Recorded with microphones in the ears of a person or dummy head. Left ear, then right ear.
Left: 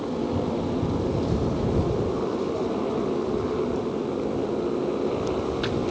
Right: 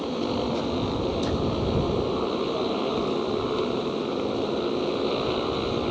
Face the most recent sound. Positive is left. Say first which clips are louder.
# even
turn(degrees=-75)  # may be behind; listen again after turning